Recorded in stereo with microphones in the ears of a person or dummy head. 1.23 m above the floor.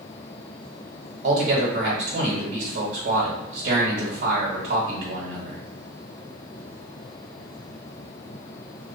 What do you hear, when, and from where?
1.2 s a man speaking: 55° right (ahead or behind), 1.6 m